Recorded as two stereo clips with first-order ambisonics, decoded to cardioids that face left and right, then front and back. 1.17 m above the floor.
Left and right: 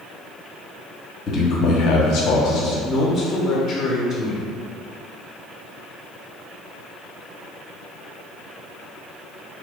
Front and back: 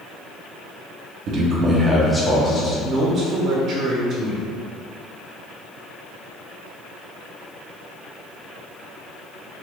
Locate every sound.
1.3 s a man speaking: 145° left, 0.7 m; by 2.7 s 60° left, 0.9 m
2.8 s a man speaking: 145° left, 0.7 m